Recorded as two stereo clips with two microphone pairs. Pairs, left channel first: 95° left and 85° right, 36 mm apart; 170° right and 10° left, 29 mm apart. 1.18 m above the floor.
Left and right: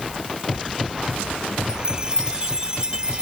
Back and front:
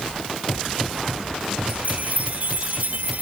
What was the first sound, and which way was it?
A chime, 15° right.